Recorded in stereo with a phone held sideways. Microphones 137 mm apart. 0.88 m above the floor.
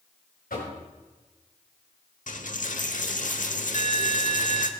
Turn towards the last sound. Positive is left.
turn(degrees=70)  # may be behind; listen again after turning